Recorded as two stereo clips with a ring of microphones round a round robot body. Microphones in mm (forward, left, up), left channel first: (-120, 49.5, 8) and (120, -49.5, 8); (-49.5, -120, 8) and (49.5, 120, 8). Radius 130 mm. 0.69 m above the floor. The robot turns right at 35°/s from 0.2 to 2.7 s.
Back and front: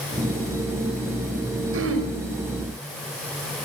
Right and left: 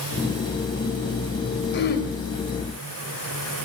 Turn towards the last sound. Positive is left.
turn(degrees=-30)